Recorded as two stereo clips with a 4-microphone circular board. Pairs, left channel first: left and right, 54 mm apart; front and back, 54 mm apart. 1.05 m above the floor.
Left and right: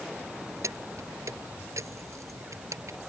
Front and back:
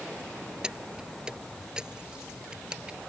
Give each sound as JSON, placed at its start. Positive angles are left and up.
{"t": 0.6, "sound": "keys jangling", "azimuth_deg": -105}